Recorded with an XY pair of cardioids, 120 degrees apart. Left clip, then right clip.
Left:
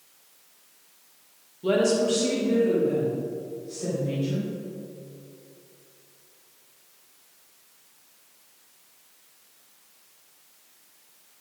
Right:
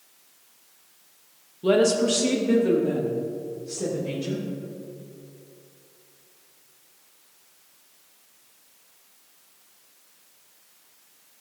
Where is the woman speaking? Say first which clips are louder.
Right 2 dB; 20° right, 1.6 m; by 4.4 s 65° right, 5 m.